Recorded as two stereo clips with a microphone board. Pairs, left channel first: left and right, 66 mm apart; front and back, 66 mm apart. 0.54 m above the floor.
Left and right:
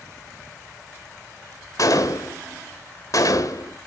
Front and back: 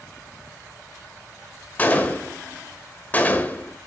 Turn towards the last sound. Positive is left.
turn(degrees=65)